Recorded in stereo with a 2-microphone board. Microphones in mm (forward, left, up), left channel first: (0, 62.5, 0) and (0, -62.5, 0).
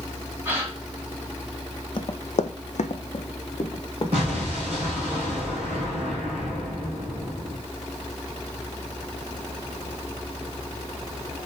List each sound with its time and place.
0.5 s a gasp: 20° right (ahead or behind), 1.3 m
2.0 s running footsteps: 45° left (ahead or behind), 0.6 m; by 4.9 s 35° left (ahead or behind), 1.9 m
4.1 s an explosion: 50° right (ahead or behind), 3 m